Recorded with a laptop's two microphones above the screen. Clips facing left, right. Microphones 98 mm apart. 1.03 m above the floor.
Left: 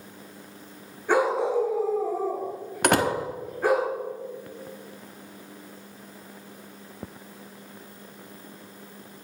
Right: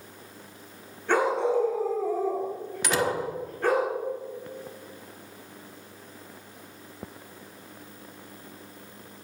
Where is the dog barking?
10° left (ahead or behind), 4 m.